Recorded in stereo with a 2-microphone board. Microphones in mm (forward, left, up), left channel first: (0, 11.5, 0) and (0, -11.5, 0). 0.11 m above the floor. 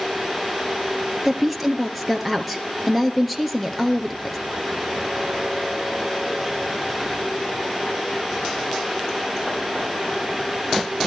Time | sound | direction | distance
1.2 | a woman speaking | 5° left (ahead or behind) | 1.9 m